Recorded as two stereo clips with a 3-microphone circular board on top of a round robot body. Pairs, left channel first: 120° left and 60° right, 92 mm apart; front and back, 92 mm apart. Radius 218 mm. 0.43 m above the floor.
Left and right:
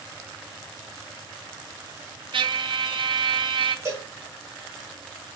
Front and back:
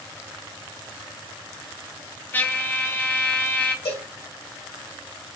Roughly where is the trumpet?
Ahead right.